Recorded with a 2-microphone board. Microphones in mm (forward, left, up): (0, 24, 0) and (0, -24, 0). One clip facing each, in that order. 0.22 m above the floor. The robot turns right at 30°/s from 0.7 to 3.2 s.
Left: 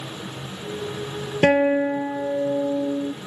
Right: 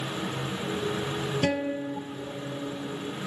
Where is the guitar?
50° left; by 3.1 s 100° left.